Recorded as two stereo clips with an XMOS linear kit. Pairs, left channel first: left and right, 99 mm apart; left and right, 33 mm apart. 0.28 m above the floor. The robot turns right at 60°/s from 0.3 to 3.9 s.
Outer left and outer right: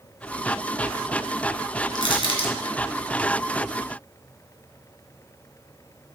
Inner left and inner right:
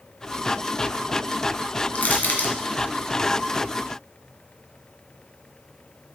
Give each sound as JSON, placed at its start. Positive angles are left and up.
{"t": 1.9, "sound": "crushing", "side_deg": 50, "distance_m": 2.5}